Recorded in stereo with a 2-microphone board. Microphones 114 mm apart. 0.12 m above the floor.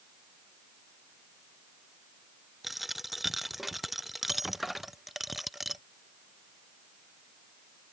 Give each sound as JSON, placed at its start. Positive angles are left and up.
{"t": 2.6, "sound": "a dropped coin", "side_deg": 0}